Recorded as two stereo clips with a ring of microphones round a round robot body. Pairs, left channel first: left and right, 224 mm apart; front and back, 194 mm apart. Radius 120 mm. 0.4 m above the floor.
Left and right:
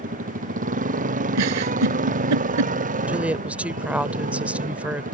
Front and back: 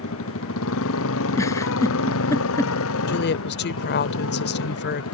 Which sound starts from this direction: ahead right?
A motorcycle, at 0.0 s.